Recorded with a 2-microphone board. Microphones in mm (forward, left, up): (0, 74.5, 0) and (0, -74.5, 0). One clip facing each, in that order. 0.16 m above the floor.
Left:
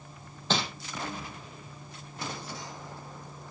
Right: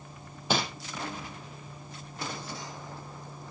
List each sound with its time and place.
0.5 s crumpling: 10° right (ahead or behind), 4.5 m